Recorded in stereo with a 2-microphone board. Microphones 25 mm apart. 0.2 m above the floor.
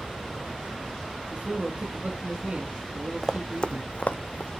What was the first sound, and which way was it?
A man speaking, 30° right (ahead or behind).